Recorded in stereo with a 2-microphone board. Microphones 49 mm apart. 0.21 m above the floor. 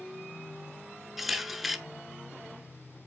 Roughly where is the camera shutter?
Centre.